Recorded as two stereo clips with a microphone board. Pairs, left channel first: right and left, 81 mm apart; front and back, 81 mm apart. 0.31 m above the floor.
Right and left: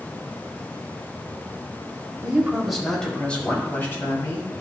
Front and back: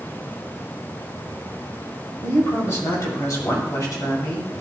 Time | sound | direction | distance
2.2 | a man speaking | 25° left | 1.6 m